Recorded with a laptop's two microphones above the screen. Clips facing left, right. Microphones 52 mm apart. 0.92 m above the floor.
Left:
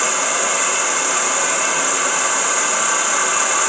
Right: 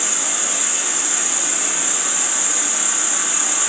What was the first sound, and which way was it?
An insect, 65° left (ahead or behind).